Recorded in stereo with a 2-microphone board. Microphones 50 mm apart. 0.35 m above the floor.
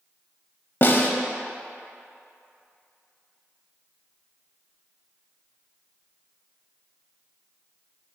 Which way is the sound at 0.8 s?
45° left (ahead or behind).